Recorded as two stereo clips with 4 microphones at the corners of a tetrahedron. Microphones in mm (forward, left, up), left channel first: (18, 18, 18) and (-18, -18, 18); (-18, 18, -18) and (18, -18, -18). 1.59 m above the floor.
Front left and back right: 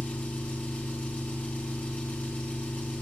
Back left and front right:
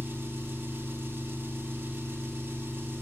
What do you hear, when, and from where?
0.0 s an engine running: 10° right, 4 m